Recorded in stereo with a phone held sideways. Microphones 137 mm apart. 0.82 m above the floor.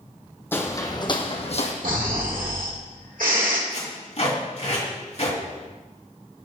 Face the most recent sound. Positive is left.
turn(degrees=55)  # may be behind; listen again after turning